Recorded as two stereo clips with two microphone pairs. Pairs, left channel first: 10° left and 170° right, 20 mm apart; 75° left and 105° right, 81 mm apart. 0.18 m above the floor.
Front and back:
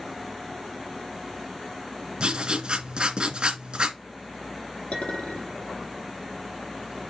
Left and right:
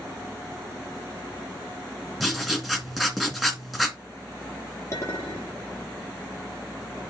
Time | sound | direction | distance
2.2 | writing | 170° left | 2 m
4.9 | a clink | 25° left | 3.5 m